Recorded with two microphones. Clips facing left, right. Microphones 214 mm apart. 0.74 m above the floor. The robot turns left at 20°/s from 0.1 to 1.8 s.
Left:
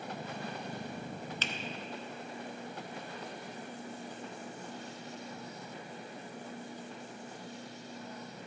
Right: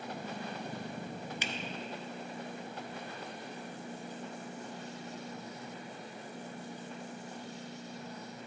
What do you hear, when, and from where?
1.4 s a finger snap: 15° right (ahead or behind), 0.5 m; by 1.5 s 10° right (ahead or behind), 0.5 m